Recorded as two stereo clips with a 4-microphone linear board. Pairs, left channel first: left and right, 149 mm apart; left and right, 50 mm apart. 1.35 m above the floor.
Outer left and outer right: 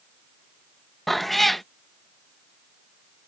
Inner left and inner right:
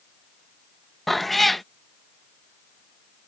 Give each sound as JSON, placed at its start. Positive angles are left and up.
{"t": 1.1, "sound": "a cat meowing", "side_deg": 0}